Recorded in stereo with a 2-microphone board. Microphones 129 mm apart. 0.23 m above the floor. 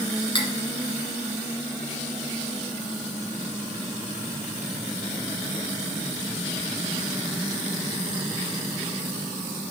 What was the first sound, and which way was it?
Cutlery clinking, 50° left (ahead or behind).